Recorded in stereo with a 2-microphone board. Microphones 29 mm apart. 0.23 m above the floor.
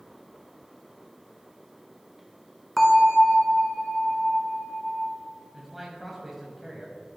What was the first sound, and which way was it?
A bell, 5° left (ahead or behind).